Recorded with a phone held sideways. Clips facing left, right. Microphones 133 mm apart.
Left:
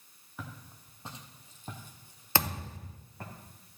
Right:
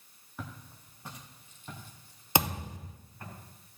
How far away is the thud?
About 0.7 m.